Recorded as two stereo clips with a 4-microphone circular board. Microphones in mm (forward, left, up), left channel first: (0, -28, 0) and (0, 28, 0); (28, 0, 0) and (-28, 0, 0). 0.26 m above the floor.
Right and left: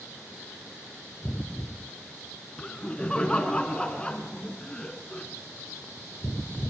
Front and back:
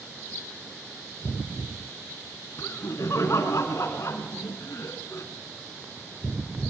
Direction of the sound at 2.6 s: 20° right.